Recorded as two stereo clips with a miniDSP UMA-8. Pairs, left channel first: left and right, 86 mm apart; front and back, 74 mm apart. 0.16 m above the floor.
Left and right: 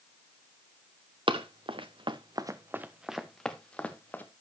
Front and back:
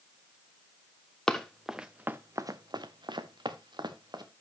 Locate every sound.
1.3 s running footsteps: 80° right, 1.0 m; by 4.2 s 160° left, 1.5 m